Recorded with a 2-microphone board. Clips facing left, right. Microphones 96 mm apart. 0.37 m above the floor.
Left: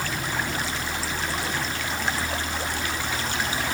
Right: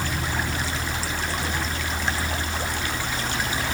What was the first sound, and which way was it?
Only background noise.